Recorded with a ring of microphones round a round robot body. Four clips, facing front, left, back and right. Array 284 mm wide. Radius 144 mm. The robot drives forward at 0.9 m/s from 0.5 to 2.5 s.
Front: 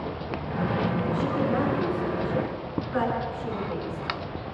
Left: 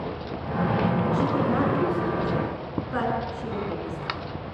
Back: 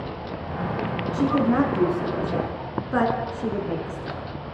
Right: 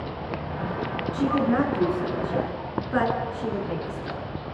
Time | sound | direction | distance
1.1 | a woman speaking | 160° right | 5 m